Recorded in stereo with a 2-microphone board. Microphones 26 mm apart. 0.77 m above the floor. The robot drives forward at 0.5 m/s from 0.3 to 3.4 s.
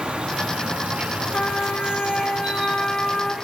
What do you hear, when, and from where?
0.0 s an insect: 45° right (ahead or behind), 0.7 m; by 3.5 s 25° right (ahead or behind), 1.2 m
1.3 s a trumpet: 70° left (ahead or behind), 0.9 m; by 3.4 s 35° left (ahead or behind), 1.5 m